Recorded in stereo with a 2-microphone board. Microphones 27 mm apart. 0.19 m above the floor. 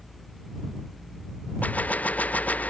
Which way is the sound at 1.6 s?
65° left (ahead or behind).